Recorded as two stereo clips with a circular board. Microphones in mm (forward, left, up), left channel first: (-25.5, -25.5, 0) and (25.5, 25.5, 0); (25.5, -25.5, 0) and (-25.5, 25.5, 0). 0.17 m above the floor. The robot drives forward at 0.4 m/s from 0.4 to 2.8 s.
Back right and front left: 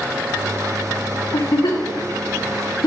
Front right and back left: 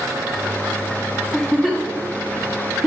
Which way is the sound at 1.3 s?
130° right.